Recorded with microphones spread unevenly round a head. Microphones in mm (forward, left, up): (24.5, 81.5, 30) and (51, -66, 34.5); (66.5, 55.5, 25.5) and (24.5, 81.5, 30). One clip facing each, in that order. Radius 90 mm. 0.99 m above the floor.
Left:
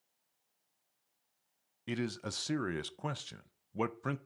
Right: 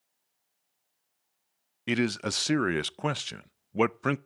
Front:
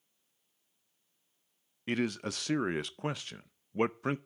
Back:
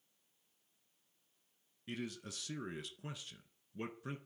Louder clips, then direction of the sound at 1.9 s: Right 9 dB, front 12 dB; 65° right.